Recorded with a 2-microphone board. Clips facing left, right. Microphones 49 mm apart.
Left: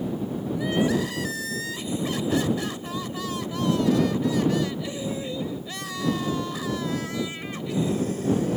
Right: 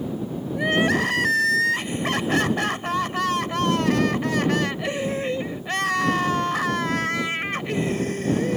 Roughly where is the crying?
Right.